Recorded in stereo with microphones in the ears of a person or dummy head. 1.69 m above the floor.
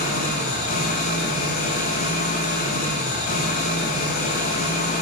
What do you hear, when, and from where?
0.0 s an engine running: 50° left (ahead or behind), 1.2 m